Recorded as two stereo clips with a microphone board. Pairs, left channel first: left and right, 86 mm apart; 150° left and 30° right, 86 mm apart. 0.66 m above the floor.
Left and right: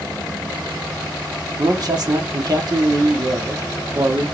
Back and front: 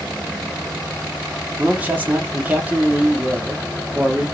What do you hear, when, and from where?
1.6 s a man speaking: 95° right, 1.3 m